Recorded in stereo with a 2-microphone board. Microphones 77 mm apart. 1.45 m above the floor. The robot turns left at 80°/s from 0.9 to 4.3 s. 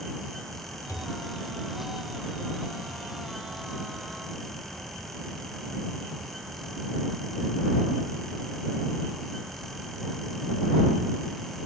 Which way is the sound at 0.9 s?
45° left.